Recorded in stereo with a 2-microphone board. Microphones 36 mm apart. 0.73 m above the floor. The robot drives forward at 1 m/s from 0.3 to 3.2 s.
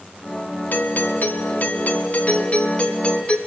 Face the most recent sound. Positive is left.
turn(degrees=30)  # may be behind; listen again after turning